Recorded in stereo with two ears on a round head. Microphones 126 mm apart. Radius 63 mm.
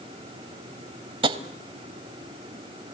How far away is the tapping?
About 1.0 m.